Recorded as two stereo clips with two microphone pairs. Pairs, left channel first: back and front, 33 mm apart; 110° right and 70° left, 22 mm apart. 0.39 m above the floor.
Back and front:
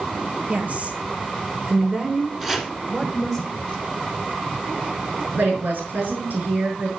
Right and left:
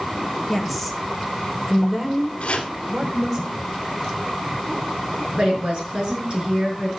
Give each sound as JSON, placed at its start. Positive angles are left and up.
{"t": 0.5, "sound": "a woman speaking", "azimuth_deg": -25, "distance_m": 1.8}
{"t": 2.4, "sound": "chopping", "azimuth_deg": -75, "distance_m": 1.9}
{"t": 5.4, "sound": "a woman speaking", "azimuth_deg": 25, "distance_m": 5.5}